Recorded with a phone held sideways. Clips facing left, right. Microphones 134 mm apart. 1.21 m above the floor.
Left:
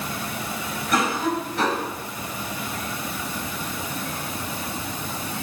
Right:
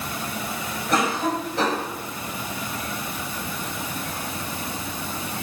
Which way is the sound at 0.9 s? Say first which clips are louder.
Even; 30° right (ahead or behind).